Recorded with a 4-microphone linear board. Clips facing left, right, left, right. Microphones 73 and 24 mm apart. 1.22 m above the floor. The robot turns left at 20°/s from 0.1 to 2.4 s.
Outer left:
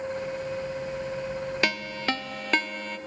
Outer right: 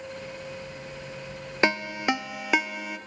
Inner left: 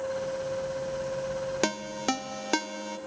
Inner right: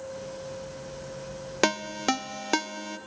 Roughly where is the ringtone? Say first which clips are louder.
Outer right 7 dB, inner right 7 dB; right.